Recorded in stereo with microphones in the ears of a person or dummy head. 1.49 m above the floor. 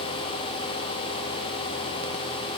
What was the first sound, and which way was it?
Only background noise.